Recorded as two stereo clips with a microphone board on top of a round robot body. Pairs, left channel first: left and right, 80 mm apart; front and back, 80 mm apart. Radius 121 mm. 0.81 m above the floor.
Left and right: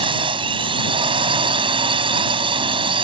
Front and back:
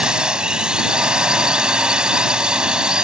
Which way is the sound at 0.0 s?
100° right.